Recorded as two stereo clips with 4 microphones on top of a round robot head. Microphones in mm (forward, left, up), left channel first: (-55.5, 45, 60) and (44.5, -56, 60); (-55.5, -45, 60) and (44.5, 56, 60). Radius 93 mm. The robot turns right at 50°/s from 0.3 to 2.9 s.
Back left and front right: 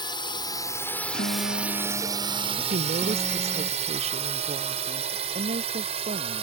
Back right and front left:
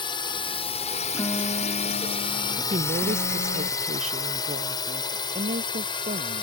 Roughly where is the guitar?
Behind left.